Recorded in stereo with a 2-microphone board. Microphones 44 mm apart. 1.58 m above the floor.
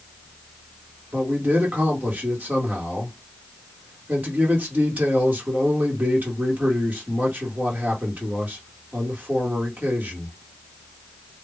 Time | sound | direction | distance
1.1 | a man speaking | 40° right (ahead or behind) | 1.4 m